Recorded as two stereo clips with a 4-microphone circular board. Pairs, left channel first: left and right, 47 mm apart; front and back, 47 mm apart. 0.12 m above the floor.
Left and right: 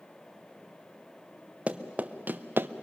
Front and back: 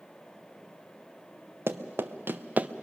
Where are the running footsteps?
150° right, 1.3 m; by 2.7 s 125° right, 0.7 m.